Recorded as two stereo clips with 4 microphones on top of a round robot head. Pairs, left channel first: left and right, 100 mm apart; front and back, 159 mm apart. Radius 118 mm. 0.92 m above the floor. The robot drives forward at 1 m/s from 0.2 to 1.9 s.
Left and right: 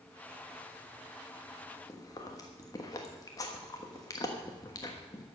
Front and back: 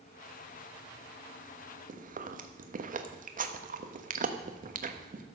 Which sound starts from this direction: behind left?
Chewing, at 1.9 s.